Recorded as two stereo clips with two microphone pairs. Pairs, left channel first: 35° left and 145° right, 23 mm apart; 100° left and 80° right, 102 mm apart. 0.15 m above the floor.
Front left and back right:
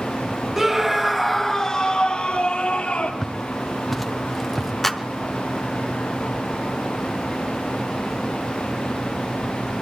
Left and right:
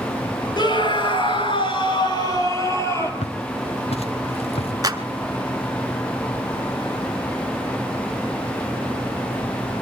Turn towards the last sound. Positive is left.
turn(degrees=-45)